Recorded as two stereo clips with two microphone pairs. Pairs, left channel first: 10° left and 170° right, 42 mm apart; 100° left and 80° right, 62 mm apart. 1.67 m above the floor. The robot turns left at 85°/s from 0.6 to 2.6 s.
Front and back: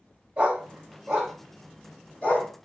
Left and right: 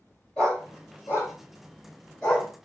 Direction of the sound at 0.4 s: 165° left.